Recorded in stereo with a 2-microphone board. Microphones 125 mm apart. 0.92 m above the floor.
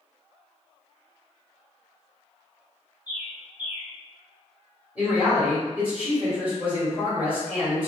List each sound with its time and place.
3.1 s a bird: 15° right (ahead or behind), 0.8 m
5.0 s a man speaking: 10° right (ahead or behind), 1.8 m